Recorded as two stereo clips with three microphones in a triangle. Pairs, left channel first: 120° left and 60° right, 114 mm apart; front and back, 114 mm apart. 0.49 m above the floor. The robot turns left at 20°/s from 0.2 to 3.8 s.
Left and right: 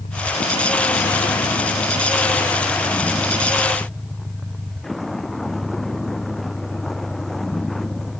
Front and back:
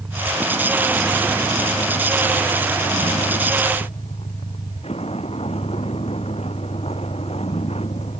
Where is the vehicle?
100° left; by 8.2 s 30° left.